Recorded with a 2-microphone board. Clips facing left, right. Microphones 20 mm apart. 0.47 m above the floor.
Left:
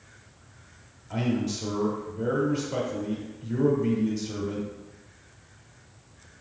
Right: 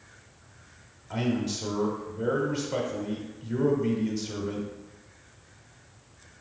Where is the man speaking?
20° right (ahead or behind), 1.3 m.